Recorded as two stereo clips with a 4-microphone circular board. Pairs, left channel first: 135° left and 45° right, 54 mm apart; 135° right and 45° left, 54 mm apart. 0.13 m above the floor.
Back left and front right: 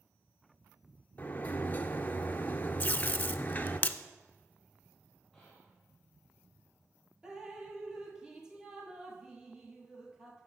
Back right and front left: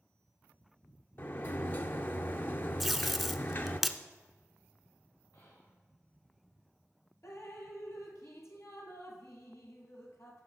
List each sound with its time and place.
1.2 s a sliding door: 170° right, 0.6 m
2.8 s tape being pulled: 135° left, 0.5 m
5.3 s whispering: 150° right, 3.5 m
7.2 s dripping: 120° right, 1.7 m